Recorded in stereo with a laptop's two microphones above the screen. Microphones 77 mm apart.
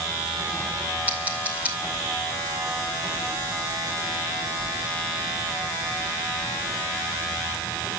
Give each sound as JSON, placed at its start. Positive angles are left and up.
{"t": 1.1, "sound": "scissors", "side_deg": -20, "distance_m": 2.5}